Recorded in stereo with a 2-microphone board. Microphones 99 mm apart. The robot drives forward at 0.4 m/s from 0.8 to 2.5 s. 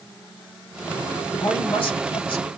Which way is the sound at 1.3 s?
60° left (ahead or behind).